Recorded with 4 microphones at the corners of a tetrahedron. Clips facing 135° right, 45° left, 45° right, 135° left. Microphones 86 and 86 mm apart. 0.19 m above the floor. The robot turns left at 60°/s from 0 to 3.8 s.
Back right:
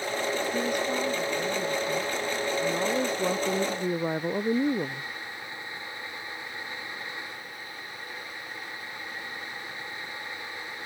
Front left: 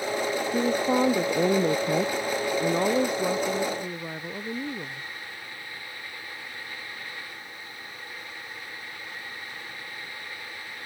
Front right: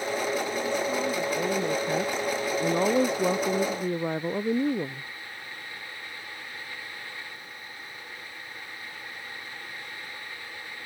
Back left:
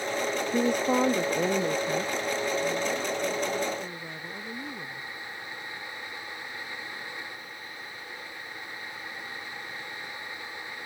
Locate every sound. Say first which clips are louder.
0.5 s a woman speaking: front left 5 dB, back left 3 dB; 115° left; by 5.1 s 80° right